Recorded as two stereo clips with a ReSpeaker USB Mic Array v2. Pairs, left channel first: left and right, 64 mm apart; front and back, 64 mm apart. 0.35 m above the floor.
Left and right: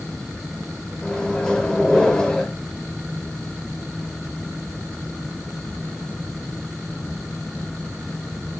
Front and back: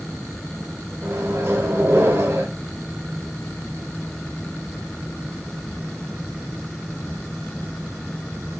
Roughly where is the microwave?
Behind.